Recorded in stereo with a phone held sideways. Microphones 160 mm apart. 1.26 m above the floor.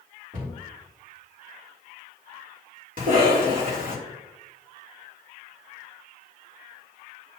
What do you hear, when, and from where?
0.3 s a cupboard door: 55° right (ahead or behind), 2.5 m
3.0 s a cough: 55° right (ahead or behind), 2.5 m